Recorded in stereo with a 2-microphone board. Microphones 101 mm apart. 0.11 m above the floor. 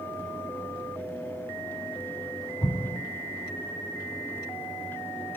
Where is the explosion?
50° left (ahead or behind), 2.5 m.